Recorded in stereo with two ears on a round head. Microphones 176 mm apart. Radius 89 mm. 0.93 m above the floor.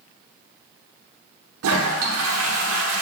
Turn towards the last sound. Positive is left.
turn(degrees=-90)